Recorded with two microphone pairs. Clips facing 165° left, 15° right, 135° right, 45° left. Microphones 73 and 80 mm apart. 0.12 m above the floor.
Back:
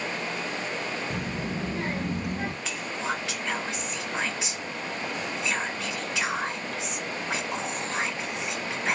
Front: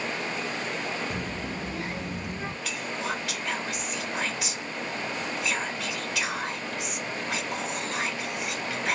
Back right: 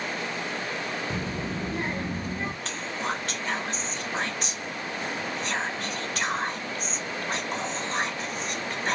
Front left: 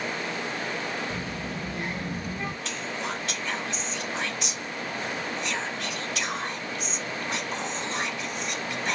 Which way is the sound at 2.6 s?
145° right.